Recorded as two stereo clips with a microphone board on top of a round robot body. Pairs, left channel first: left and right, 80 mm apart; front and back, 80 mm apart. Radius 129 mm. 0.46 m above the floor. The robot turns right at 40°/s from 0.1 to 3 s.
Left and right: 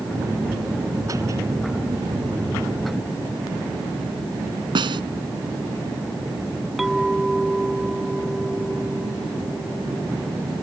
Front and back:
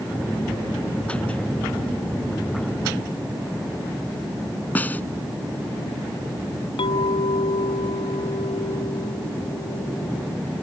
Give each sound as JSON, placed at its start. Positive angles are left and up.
{"t": 4.8, "sound": "a snare drum", "azimuth_deg": -70}
{"t": 6.8, "sound": "a clink", "azimuth_deg": 0}